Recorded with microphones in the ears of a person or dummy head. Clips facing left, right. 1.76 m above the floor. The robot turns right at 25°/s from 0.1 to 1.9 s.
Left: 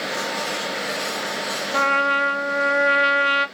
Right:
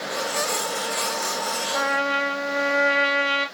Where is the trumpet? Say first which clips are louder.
Left 2 dB; 55° left (ahead or behind), 0.9 m; by 3.5 s 60° left (ahead or behind), 0.9 m.